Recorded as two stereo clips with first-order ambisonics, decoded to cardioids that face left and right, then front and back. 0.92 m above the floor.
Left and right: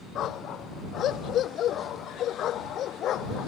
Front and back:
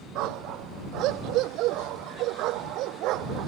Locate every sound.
0.1 s a dog barking: 145° left